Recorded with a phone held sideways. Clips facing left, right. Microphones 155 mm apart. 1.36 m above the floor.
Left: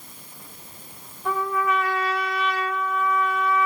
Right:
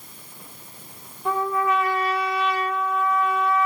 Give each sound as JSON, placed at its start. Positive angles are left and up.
{"t": 1.2, "sound": "a trumpet", "side_deg": -25, "distance_m": 1.3}